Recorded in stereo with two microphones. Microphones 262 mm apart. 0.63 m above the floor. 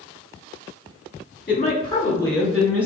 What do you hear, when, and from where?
1.5 s a woman speaking: 35° left (ahead or behind), 1.1 m; by 2.9 s 5° right (ahead or behind), 2.5 m